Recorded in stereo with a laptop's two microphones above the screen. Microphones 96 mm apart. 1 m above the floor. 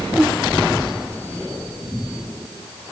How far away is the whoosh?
About 1.4 m.